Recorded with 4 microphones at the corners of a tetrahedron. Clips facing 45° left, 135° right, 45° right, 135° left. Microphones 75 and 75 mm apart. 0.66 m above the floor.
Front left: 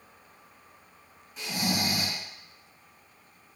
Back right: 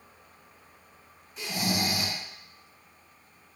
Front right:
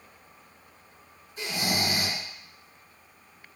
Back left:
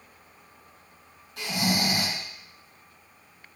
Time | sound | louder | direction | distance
1.4 | snoring | even, back left 2 dB | 130° left | 2.5 m